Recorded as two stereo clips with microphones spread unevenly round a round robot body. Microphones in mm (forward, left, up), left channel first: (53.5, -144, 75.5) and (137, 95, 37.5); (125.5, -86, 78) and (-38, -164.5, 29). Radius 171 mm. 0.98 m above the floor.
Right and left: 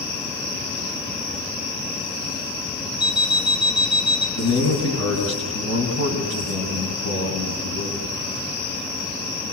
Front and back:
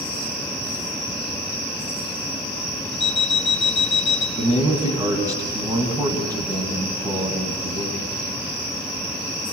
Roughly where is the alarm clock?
Ahead.